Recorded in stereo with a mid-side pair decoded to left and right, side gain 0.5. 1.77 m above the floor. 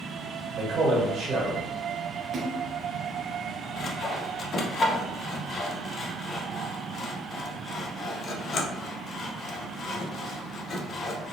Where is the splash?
45° right, 0.6 m.